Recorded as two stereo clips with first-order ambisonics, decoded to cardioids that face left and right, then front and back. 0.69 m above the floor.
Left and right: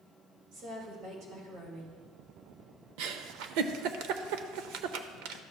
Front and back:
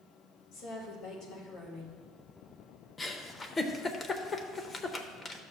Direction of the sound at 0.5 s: 50° right.